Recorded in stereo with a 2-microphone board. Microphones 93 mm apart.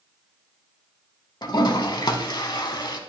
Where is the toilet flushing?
50° left (ahead or behind), 0.7 m.